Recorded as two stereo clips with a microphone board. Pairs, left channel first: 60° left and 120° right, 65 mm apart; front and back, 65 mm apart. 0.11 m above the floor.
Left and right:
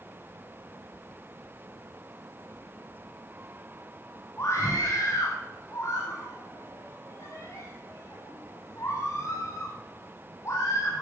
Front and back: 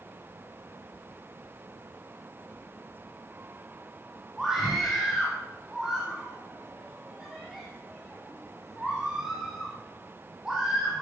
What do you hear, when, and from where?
4.4 s a scream: 100° left, 3.5 m